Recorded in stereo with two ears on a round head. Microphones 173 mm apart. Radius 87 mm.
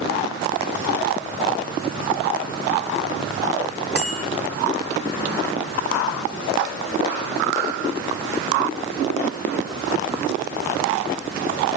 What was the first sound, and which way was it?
A bicycle bell, 5° right (ahead or behind).